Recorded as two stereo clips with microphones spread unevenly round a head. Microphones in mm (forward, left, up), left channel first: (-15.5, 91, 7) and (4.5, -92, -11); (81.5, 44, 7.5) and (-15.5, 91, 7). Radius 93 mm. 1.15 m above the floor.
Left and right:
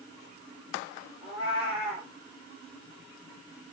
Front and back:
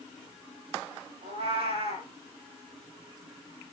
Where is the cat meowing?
155° left, 8.5 m.